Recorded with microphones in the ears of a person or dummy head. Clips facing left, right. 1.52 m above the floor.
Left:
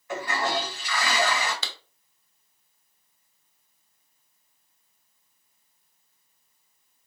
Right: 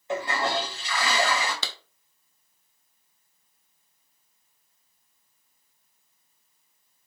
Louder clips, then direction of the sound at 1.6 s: Right 2 dB; 75° right (ahead or behind).